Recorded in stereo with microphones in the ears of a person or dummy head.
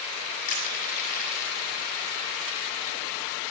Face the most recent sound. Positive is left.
turn(degrees=45)  # may be behind; listen again after turning